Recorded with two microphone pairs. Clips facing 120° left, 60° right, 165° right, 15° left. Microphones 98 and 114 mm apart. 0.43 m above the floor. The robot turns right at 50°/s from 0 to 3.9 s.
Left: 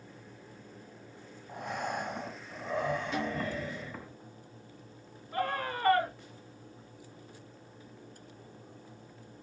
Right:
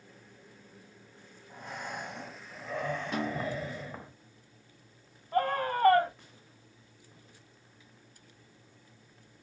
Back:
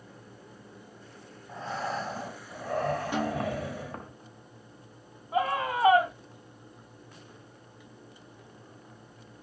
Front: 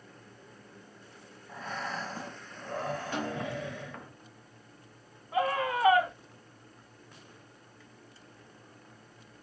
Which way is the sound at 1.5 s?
125° left.